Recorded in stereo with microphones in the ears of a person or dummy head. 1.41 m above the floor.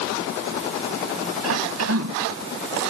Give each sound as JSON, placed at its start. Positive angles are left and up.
{"t": 1.4, "sound": "a cough", "side_deg": -90}